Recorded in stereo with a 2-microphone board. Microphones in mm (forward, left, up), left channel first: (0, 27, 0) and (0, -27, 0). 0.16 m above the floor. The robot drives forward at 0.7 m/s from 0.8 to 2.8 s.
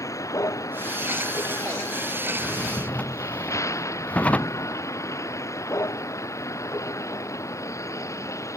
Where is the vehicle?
70° left (ahead or behind); by 8.6 s 60° left (ahead or behind).